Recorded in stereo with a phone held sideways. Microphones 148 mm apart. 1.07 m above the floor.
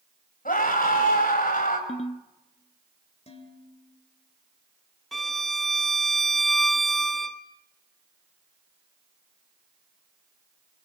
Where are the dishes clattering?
45° left (ahead or behind), 3 m.